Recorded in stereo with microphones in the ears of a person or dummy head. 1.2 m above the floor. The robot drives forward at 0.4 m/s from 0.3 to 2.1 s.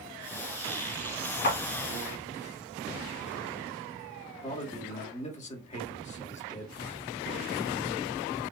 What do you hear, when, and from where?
1.4 s a clap: 60° left (ahead or behind), 1.9 m
4.4 s a man speaking: 30° left (ahead or behind), 1.1 m